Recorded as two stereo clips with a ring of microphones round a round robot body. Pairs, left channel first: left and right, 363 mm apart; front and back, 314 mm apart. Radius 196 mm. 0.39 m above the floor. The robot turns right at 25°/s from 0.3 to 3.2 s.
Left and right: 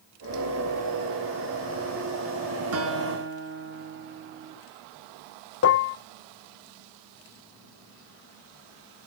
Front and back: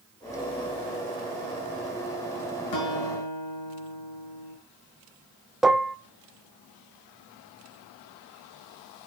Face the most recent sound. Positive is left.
turn(degrees=95)